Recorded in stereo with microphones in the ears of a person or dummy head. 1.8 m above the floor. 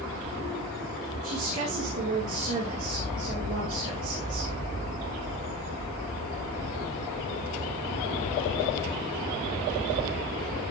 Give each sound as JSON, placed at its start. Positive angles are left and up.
{"t": 1.2, "sound": "a woman speaking", "side_deg": -40, "distance_m": 2.5}